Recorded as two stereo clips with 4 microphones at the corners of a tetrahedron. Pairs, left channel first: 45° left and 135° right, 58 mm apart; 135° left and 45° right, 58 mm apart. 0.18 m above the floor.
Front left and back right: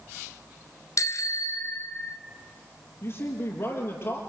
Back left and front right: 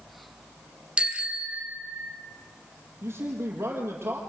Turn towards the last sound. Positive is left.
turn(degrees=0)